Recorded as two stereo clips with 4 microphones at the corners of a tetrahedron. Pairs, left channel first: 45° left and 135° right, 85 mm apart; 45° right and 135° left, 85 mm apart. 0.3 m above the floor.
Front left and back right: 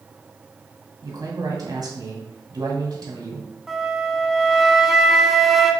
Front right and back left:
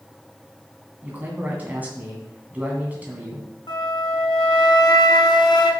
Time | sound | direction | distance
1.0 | a man speaking | 160° right | 1.8 m
3.7 | a flute | 45° right | 0.9 m